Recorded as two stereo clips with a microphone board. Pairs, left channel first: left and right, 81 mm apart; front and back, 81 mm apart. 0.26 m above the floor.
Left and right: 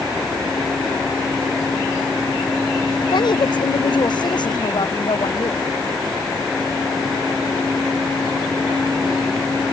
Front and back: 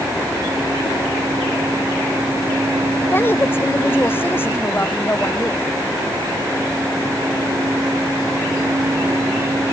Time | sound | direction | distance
3.0 | a woman speaking | 65° left | ?